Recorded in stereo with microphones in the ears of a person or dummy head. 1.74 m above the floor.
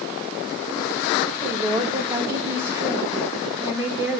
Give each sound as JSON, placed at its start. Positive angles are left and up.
{"t": 1.4, "sound": "a woman speaking", "side_deg": -20, "distance_m": 2.0}